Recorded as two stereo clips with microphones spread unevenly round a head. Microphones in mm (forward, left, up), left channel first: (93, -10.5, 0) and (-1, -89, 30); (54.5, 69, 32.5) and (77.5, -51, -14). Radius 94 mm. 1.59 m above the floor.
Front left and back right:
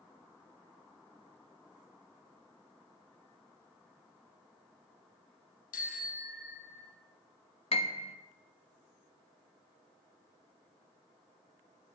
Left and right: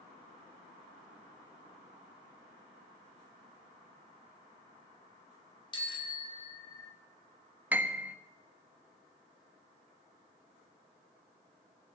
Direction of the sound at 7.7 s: 15° left.